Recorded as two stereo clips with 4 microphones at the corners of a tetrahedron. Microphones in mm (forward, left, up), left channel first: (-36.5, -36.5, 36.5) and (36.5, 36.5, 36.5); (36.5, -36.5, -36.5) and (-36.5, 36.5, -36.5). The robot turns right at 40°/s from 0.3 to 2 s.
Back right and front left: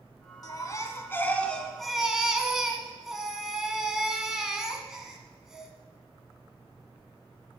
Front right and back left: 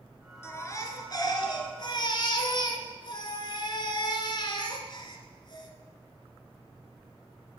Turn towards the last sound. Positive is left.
turn(degrees=-40)